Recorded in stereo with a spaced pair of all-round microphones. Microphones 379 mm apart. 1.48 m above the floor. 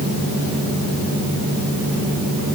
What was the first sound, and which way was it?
Only background noise.